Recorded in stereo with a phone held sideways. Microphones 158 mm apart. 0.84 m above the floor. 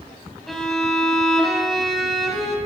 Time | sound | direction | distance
0.5 | a violin | centre (ahead or behind) | 2.5 m